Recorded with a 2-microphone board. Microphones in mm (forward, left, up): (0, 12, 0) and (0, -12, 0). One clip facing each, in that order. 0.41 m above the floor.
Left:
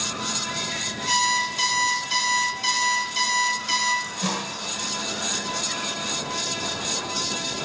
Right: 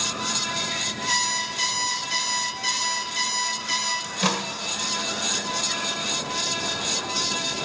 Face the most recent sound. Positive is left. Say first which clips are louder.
# right 3 dB
turn(degrees=-40)  # may be behind; listen again after turning